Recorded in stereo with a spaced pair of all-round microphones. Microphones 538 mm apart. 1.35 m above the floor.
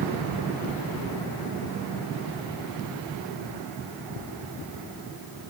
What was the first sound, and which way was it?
Only background noise.